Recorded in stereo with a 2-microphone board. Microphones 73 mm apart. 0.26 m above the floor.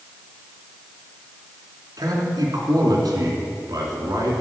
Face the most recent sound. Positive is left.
turn(degrees=-60)  # may be behind; listen again after turning